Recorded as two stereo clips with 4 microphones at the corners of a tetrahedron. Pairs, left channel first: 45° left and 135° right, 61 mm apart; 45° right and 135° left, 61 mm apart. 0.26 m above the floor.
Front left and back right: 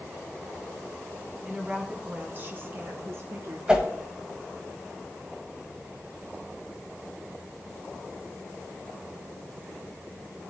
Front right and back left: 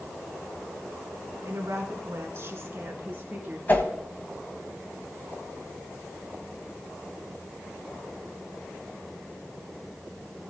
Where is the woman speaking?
150° left, 1.7 m; by 3.6 s 170° right, 3 m.